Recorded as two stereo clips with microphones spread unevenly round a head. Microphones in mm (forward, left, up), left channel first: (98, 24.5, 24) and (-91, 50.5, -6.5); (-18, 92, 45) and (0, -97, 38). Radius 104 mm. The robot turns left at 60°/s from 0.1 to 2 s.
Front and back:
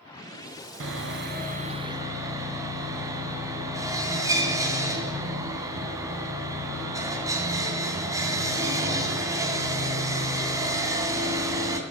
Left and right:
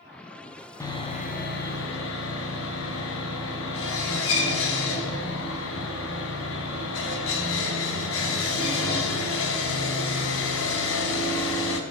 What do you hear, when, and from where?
0.8 s sawing: 165° left, 2.0 m; by 11.8 s 95° left, 2.0 m